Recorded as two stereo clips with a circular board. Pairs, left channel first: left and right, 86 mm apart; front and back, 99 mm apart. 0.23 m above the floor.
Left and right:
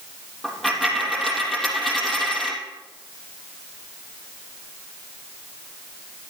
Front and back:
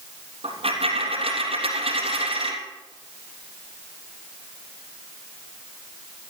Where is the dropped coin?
Straight behind, 3 m.